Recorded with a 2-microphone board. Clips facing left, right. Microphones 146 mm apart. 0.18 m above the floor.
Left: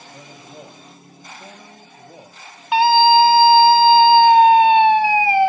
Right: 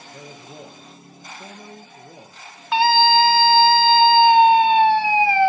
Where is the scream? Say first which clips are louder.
Left 4 dB; 15° left (ahead or behind), 1.2 m.